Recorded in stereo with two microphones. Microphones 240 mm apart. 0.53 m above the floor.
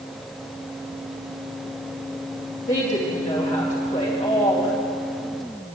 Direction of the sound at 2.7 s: 30° left (ahead or behind).